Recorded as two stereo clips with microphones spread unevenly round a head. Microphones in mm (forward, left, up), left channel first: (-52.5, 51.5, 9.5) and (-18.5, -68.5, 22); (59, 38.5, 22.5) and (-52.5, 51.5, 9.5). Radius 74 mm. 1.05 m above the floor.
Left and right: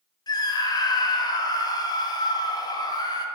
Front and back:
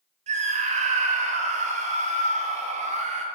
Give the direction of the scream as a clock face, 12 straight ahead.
7 o'clock.